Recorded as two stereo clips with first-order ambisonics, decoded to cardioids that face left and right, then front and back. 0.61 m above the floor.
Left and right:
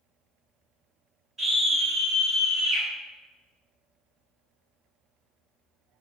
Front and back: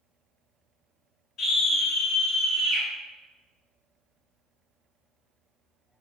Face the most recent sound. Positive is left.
turn(degrees=-130)